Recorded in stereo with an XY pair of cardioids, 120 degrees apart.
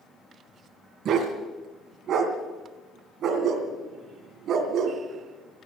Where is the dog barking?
60° right, 2.5 m.